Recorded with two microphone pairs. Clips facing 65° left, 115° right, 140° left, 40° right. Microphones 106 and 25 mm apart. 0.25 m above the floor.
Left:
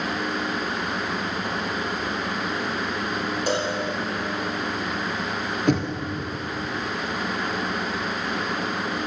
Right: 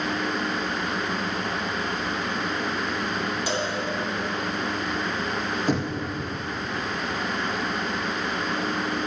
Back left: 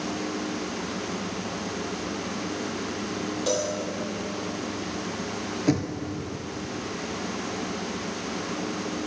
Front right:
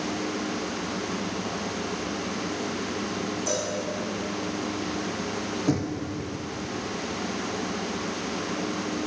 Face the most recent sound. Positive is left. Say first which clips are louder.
# left 4 dB, back left 2 dB
turn(degrees=85)